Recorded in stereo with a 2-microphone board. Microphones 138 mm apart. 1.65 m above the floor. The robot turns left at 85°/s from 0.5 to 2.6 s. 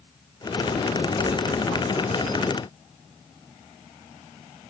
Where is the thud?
85° left, 2 m; by 1.6 s 50° left, 2 m.